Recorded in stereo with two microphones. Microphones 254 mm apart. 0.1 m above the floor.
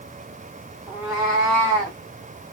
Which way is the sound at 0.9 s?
5° right (ahead or behind).